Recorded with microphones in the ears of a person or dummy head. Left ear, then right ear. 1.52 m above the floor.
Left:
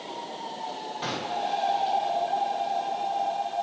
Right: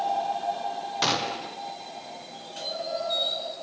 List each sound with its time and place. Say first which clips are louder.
1.0 s a gunshot: right 3 dB; 65° right (ahead or behind), 1.1 m